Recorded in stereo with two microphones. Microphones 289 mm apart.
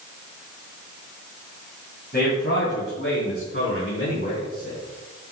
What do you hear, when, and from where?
2.1 s a man speaking: 35° left (ahead or behind), 2.5 m; by 4.8 s 40° left (ahead or behind), 4 m